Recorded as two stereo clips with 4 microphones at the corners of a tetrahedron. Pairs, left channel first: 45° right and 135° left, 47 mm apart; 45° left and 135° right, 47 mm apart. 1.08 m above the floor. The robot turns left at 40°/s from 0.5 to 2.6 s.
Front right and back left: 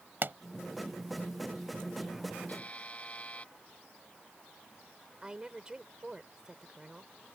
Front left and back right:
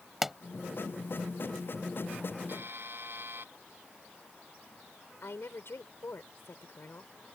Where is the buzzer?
100° right; by 3.5 s 105° right.